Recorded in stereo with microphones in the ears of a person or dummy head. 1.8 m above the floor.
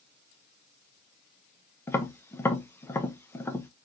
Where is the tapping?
10° left (ahead or behind), 0.5 m.